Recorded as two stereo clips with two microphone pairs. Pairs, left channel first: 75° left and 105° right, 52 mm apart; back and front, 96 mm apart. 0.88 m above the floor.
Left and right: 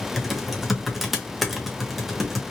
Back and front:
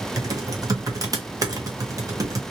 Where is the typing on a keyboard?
15° right, 0.8 m.